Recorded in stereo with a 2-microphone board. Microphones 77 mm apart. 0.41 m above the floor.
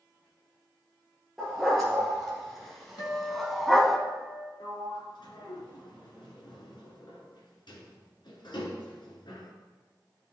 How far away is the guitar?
About 1.8 m.